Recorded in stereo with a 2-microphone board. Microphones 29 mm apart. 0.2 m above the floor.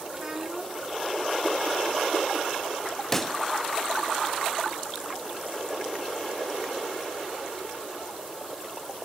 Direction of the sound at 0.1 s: 20° right (ahead or behind).